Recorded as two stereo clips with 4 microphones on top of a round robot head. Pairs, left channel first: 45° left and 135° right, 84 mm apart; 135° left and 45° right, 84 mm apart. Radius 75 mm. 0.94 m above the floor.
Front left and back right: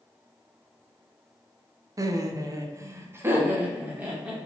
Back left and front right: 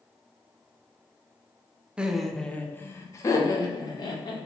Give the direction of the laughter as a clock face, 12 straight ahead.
4 o'clock.